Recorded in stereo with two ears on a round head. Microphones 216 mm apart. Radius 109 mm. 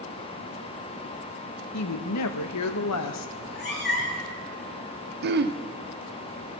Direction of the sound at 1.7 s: 75° left (ahead or behind).